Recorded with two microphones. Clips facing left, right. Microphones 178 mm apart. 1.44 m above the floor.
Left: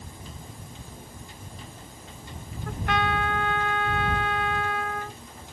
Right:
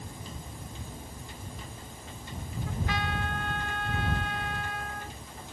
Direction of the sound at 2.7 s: 65° left (ahead or behind).